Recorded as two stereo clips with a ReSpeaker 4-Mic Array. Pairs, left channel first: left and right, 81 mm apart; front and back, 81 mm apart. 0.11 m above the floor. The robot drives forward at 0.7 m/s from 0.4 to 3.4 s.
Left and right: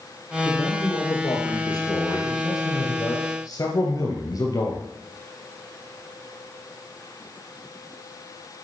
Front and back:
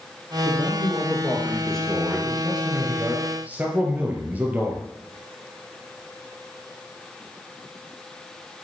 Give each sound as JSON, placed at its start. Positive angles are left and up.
{"t": 0.5, "sound": "a man speaking", "azimuth_deg": 60, "distance_m": 3.0}